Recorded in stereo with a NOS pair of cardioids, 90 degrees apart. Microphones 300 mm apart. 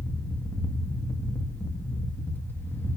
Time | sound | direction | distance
0.0 | a fan | 5° left | 1.8 m